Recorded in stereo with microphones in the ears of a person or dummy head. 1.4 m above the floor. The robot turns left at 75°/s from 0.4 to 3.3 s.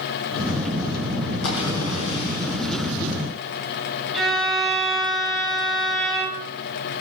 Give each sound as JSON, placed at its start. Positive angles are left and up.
{"t": 1.4, "sound": "a splash", "azimuth_deg": 120, "distance_m": 5.5}
{"t": 4.1, "sound": "a violin", "side_deg": 0, "distance_m": 5.5}